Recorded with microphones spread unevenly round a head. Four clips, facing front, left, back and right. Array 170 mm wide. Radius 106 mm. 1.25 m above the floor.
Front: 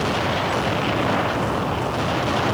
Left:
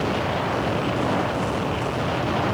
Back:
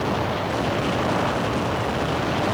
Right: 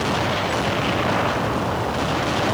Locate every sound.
Only background noise.